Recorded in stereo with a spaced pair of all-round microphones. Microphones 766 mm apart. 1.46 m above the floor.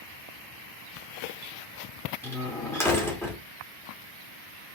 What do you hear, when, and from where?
2.2 s a door slam: 5° left (ahead or behind), 2.0 m